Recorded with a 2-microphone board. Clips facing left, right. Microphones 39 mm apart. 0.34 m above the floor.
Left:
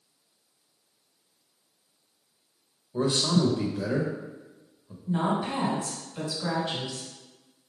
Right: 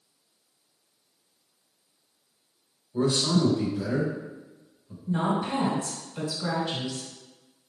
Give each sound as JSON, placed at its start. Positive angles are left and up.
{"t": 2.9, "sound": "a man speaking", "side_deg": 25, "distance_m": 0.9}
{"t": 5.1, "sound": "a woman speaking", "side_deg": 5, "distance_m": 1.7}